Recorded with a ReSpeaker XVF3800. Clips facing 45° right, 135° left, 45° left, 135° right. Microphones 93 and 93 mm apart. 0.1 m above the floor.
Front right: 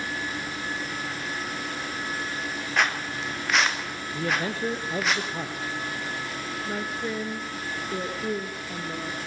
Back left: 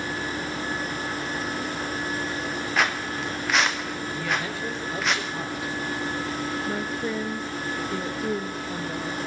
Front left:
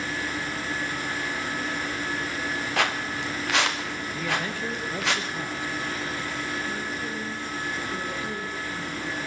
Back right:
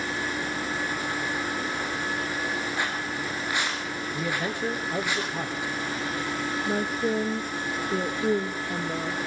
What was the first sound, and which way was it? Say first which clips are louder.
Footsteps: even, front left 3 dB; 45° left.